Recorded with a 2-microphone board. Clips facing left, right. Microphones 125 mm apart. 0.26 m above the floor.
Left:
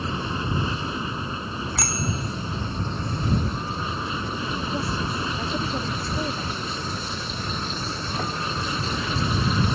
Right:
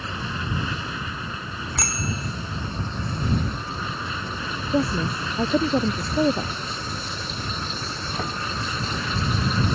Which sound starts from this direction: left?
An aircraft, at 0.0 s.